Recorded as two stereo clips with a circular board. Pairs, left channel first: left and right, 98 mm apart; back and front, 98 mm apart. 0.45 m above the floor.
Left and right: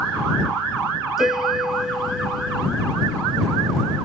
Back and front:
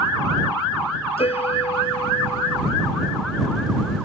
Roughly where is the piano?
Behind.